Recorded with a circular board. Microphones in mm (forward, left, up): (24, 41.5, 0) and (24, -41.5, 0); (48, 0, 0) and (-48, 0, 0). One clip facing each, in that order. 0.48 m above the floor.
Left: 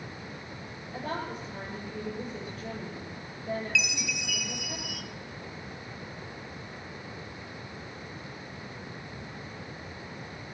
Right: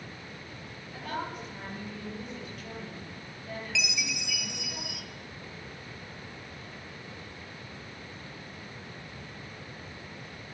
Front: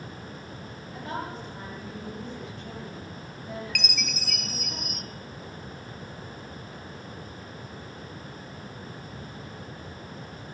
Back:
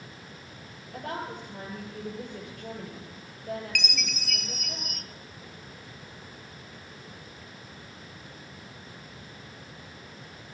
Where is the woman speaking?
145° left, 9 m.